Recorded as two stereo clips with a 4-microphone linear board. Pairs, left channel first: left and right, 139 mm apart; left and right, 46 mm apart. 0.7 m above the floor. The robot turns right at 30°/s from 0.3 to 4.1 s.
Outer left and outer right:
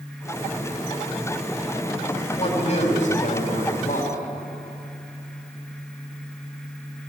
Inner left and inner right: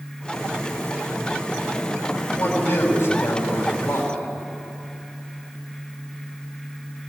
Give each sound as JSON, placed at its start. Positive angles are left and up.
{"t": 2.4, "sound": "a man speaking", "azimuth_deg": 55, "distance_m": 4.5}